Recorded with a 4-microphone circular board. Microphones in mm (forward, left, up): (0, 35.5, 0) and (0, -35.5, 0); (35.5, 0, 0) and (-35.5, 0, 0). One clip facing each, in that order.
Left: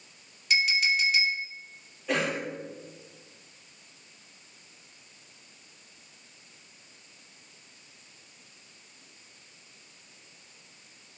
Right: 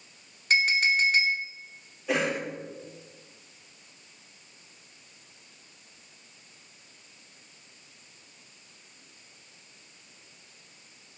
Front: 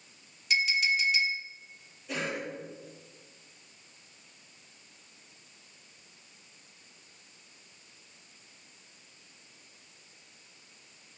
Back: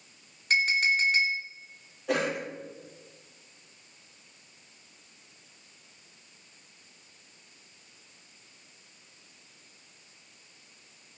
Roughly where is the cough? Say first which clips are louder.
Right 1 dB, back 6 dB; behind.